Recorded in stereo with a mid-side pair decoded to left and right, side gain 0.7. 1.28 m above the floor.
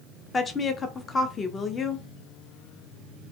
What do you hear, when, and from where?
0.3 s a woman speaking: 25° left, 0.7 m